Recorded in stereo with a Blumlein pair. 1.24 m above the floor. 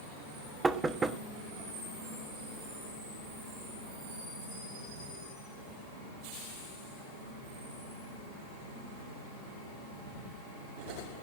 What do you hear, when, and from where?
0.6 s knocking: 15° right, 1.1 m